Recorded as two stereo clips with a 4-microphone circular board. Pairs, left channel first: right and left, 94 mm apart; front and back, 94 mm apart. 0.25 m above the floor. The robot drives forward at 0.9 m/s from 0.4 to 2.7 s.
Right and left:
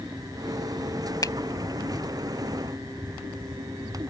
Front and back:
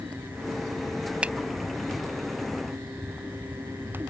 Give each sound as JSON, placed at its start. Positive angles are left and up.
{"t": 1.2, "sound": "a finger snap", "azimuth_deg": -110}